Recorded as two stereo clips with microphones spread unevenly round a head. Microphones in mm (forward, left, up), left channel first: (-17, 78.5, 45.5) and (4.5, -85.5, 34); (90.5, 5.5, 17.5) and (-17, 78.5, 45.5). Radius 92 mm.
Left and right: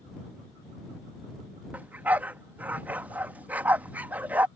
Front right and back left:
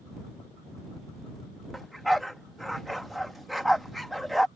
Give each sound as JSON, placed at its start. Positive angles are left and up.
{"t": 1.7, "sound": "a dog barking", "azimuth_deg": -160}